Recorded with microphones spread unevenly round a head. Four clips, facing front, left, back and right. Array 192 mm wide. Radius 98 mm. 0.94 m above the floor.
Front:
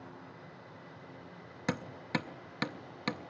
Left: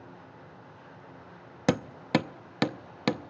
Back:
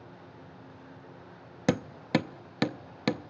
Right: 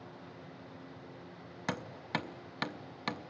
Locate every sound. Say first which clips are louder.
1.7 s hammering: left 11 dB, back 8 dB; 130° left, 0.6 m